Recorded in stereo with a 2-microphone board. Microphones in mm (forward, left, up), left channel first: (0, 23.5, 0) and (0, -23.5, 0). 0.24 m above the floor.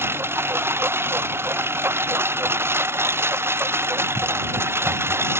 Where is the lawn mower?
55° right (ahead or behind); by 5.4 s 60° right (ahead or behind).